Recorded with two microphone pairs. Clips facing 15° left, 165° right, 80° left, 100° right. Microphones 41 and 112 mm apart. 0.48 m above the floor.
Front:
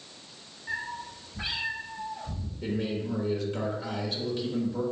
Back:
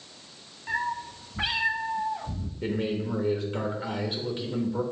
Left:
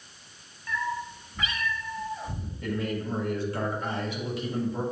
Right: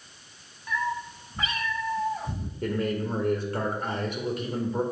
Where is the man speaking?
110° right, 1.3 m.